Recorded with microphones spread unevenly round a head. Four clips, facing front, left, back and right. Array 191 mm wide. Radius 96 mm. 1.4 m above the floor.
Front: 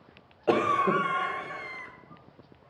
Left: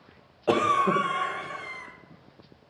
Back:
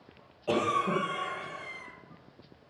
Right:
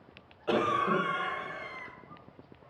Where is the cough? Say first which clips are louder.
Left 5 dB, front 4 dB; 45° left, 1.5 m.